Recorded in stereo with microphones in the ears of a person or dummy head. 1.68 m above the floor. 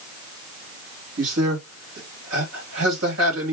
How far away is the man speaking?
About 3 m.